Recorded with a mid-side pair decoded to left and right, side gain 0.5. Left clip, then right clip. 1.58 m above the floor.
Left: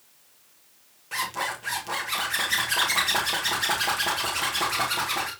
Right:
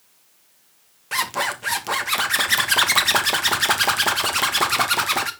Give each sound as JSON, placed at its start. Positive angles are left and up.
{"t": 1.1, "sound": "a zipper", "azimuth_deg": -50, "distance_m": 1.9}